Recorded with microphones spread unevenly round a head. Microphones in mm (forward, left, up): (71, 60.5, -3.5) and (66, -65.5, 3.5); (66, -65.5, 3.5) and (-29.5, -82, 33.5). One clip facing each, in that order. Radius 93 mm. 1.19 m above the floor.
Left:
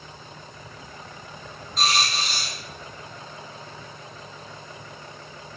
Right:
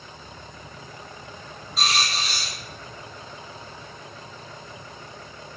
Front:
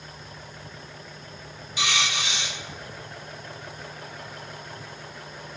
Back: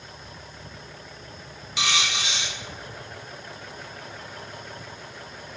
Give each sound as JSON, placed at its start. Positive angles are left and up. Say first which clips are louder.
{"t": 1.8, "sound": "a dropped coin", "louder": "left 2 dB, even", "azimuth_deg": 180, "distance_m": 1.7}